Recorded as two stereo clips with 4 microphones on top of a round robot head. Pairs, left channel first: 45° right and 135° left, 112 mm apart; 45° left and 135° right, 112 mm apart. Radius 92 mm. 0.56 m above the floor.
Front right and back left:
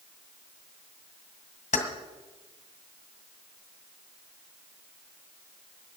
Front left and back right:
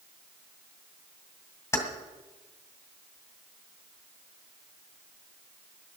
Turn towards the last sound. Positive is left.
turn(degrees=-20)